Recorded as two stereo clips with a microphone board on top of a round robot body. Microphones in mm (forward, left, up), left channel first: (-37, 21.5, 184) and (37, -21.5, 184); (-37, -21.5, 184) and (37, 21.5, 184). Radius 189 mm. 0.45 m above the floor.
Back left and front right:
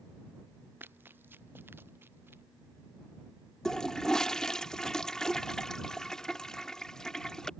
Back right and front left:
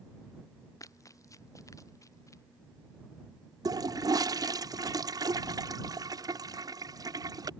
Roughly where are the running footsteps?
Right.